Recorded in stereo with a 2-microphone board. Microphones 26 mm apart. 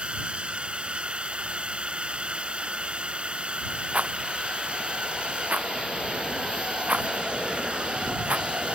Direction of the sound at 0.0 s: 45° right (ahead or behind).